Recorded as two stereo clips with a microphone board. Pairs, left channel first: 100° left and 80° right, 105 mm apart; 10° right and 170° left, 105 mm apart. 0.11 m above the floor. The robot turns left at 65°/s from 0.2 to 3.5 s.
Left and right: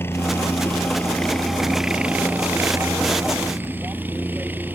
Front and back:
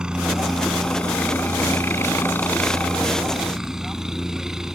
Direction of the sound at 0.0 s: 100° left.